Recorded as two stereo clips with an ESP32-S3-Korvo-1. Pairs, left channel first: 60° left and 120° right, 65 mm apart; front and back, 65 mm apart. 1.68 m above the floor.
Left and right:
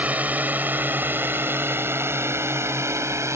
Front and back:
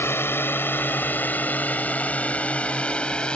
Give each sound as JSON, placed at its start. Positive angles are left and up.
{"t": 0.0, "sound": "a drone", "azimuth_deg": -50}